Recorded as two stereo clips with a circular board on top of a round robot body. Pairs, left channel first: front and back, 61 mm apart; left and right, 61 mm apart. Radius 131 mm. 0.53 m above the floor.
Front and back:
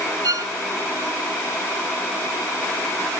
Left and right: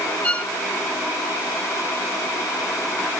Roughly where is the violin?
Behind left.